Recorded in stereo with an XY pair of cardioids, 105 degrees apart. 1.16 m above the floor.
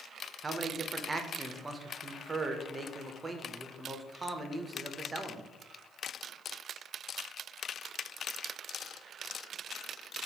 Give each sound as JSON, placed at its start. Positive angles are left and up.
{"t": 0.4, "sound": "a man speaking", "azimuth_deg": -25, "distance_m": 0.6}